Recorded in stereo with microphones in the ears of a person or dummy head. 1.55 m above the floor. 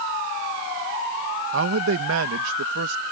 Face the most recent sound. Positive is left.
turn(degrees=-70)  # may be behind; listen again after turning